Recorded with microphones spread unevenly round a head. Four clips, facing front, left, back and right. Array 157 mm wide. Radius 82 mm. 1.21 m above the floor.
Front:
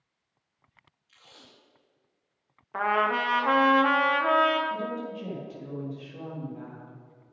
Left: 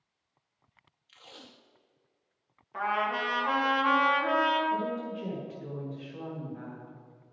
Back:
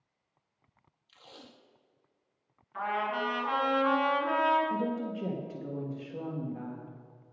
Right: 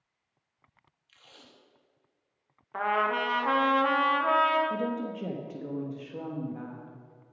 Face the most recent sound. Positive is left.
turn(degrees=-130)